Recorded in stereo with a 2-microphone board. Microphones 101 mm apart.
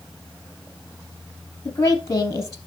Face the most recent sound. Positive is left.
turn(degrees=30)  # may be behind; listen again after turning